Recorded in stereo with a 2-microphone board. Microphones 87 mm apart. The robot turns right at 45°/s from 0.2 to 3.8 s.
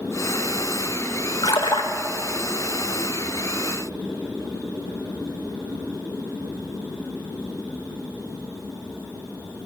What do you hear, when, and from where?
1.4 s a splash: 55° left (ahead or behind), 0.7 m; by 1.9 s 65° left (ahead or behind), 0.7 m